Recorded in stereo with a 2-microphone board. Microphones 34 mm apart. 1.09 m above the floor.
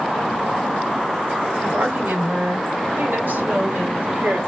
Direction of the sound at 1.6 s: 75° right (ahead or behind).